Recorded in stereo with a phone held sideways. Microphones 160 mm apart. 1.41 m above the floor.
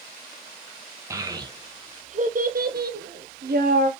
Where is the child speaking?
20° right (ahead or behind), 1.2 m; by 3.9 s 65° right (ahead or behind), 1.2 m.